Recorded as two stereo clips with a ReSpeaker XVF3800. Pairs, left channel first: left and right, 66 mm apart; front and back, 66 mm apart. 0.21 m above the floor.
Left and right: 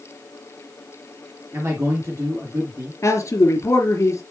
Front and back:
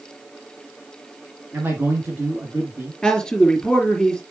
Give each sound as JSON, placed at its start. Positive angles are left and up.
{"t": 1.5, "sound": "a man speaking", "azimuth_deg": -125, "distance_m": 2.5}
{"t": 3.0, "sound": "a man speaking", "azimuth_deg": 80, "distance_m": 2.0}